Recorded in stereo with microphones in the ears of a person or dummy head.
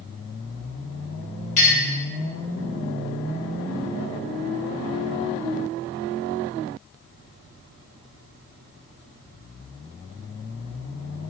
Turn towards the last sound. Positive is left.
turn(degrees=35)  # may be behind; listen again after turning